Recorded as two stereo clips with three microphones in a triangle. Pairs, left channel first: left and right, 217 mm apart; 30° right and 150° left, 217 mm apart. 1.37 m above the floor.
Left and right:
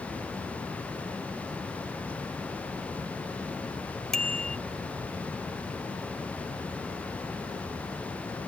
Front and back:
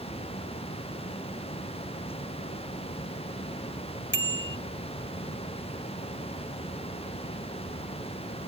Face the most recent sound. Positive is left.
turn(degrees=0)